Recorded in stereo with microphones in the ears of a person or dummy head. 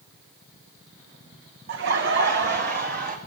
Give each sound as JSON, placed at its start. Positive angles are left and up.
{"t": 1.7, "sound": "laughter", "side_deg": -60, "distance_m": 1.2}